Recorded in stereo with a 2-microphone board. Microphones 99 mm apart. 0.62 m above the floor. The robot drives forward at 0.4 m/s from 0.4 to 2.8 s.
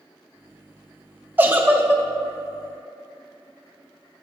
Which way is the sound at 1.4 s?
20° right (ahead or behind).